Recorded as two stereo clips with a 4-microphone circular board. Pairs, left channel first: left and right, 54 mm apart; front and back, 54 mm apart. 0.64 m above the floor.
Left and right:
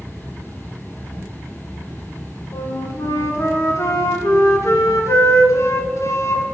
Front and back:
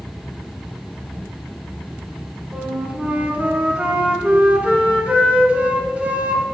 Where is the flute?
115° left, 1.1 m.